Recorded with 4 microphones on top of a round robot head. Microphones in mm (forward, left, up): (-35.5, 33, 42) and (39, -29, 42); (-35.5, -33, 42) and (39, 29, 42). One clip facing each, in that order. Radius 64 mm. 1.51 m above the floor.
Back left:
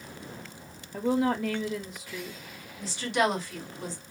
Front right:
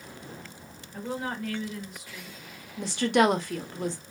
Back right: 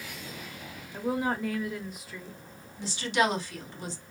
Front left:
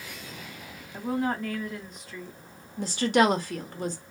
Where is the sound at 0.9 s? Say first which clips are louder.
Back left 7 dB, front left 1 dB; 135° left, 0.7 m.